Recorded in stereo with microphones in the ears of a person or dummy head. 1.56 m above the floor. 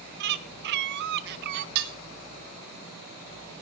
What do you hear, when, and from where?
0.2 s a bird: 60° right (ahead or behind), 1.4 m
1.8 s dishes clattering: 55° right (ahead or behind), 1.7 m